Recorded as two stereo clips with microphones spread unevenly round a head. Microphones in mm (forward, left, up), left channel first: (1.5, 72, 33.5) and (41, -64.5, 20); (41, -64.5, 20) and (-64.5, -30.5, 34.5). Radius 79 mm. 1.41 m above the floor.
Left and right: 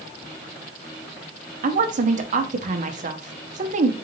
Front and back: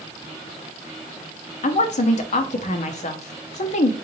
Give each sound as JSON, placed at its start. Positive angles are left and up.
{"t": 1.6, "sound": "a woman speaking", "azimuth_deg": -35, "distance_m": 0.8}